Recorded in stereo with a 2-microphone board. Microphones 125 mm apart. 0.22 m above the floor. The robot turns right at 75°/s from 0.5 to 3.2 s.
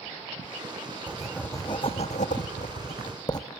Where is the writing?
10° right, 1.7 m; by 3.5 s 150° left, 1.7 m.